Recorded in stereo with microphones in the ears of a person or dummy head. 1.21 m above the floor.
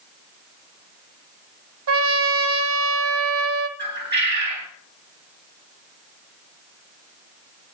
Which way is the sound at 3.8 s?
55° right (ahead or behind).